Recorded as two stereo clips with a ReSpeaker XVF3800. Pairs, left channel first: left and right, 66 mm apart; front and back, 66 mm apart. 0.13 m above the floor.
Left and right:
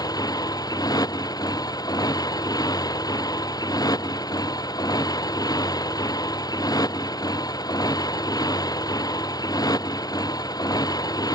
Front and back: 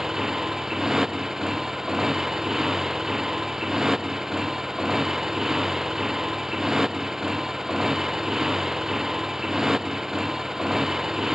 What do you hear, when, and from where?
0.0 s a motorcycle: 95° left